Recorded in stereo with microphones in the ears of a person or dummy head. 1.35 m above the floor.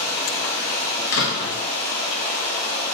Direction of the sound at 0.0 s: 25° left (ahead or behind).